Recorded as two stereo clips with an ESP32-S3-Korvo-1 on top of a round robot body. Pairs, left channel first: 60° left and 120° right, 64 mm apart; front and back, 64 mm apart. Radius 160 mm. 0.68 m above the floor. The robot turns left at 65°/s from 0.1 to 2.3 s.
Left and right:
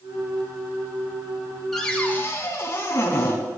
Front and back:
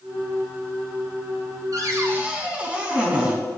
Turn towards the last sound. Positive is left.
turn(degrees=110)